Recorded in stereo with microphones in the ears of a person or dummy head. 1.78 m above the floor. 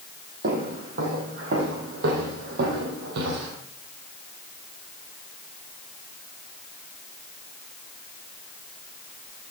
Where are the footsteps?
55° right (ahead or behind), 5 m; by 3.6 s 60° right (ahead or behind), 4 m.